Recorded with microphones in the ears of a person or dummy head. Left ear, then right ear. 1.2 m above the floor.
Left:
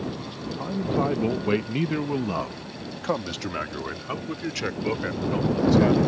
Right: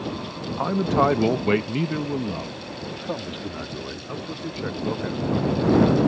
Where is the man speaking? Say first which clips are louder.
Right 6 dB; 55° right (ahead or behind); by 6.0 s 75° left (ahead or behind).